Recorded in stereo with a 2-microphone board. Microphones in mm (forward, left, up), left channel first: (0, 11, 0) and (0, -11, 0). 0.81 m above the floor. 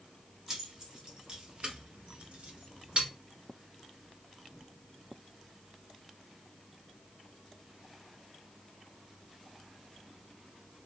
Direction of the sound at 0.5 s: 35° right (ahead or behind).